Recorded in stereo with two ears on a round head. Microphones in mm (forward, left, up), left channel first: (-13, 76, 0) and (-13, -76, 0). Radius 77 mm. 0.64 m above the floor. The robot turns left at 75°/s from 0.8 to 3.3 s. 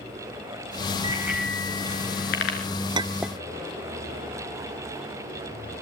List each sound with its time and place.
1.0 s a bicycle bell: 30° right (ahead or behind), 7 m; by 2.6 s 85° left, 7 m
3.0 s a clink: 30° right (ahead or behind), 0.6 m; by 3.4 s centre (ahead or behind), 0.6 m